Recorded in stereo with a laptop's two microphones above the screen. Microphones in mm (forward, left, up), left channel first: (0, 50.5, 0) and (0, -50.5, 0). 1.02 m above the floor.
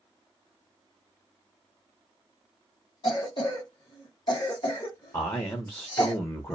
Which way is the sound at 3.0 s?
45° left (ahead or behind).